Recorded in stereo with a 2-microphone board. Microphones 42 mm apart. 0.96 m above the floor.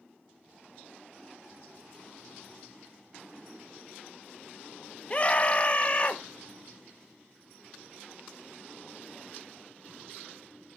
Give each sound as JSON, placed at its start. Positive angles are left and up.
{"t": 5.1, "sound": "a scream", "side_deg": 30, "distance_m": 0.9}